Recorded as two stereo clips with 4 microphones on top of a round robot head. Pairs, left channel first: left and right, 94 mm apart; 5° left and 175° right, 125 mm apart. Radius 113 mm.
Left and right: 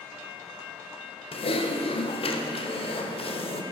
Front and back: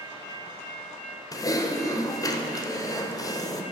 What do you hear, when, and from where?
1.3 s typing on a keyboard: 65° left, 0.7 m